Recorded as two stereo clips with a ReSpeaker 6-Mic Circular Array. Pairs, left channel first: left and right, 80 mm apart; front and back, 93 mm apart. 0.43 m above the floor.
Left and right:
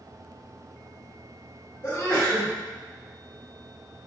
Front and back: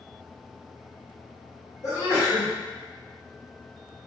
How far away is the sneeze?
About 1.8 m.